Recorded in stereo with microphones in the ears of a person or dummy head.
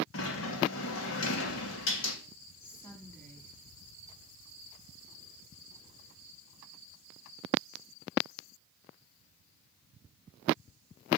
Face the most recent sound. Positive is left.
turn(degrees=10)  # may be behind; listen again after turning